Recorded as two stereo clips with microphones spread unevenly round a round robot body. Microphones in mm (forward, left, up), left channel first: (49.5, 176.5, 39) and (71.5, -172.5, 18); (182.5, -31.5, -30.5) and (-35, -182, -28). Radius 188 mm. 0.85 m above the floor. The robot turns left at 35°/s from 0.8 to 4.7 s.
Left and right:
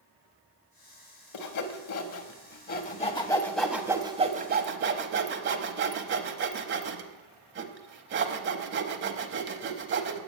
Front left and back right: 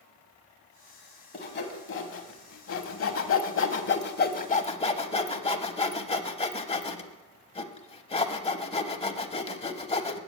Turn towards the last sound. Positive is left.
turn(degrees=-30)